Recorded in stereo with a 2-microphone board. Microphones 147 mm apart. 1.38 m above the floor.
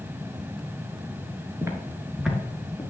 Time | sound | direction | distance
1.6 | footsteps | 20° right (ahead or behind) | 1.4 m